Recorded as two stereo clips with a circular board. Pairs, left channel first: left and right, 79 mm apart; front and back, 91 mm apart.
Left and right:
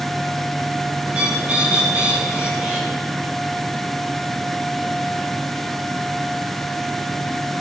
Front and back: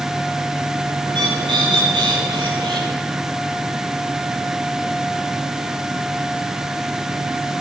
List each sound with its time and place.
1.1 s a bird: 165° right, 8.5 m